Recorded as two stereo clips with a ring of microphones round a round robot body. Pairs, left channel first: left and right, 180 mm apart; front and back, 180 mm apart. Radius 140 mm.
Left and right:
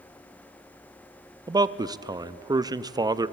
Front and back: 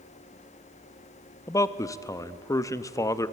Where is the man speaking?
50° right, 0.7 m.